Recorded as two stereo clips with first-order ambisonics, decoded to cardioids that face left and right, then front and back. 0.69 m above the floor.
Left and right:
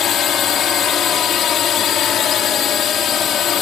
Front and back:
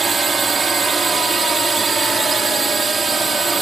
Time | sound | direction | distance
0.0 | a drone | 115° left | ?